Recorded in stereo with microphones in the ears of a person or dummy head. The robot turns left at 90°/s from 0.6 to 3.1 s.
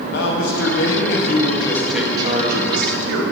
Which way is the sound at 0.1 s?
115° left.